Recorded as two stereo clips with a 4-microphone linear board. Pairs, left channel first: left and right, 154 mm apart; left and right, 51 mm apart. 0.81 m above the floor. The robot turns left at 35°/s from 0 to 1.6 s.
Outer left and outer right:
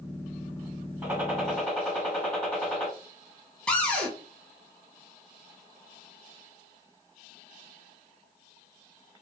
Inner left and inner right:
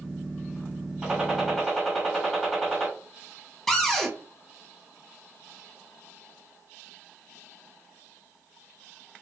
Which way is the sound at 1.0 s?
10° right (ahead or behind).